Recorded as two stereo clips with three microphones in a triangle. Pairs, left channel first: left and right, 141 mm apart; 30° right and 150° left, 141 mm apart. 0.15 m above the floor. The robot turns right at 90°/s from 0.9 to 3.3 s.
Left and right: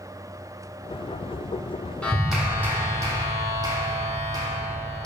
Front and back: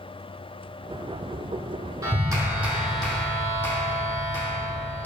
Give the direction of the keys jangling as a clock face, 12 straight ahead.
I don't hear keys jangling.